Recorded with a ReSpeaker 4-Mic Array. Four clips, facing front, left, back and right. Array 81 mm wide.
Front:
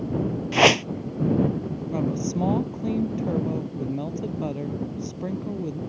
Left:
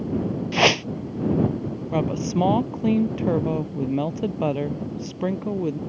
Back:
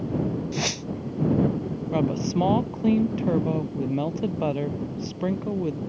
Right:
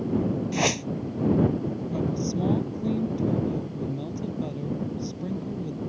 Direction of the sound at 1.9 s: 115° left.